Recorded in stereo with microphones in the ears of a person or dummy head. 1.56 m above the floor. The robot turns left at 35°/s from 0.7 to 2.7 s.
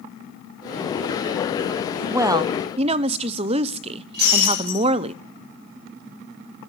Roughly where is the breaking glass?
Right.